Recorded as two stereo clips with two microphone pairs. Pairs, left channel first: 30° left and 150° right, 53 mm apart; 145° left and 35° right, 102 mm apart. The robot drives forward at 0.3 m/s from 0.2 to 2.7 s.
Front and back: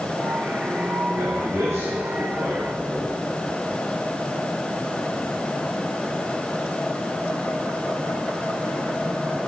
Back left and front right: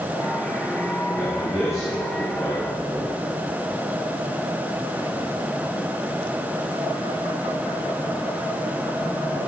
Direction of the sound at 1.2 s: 155° right.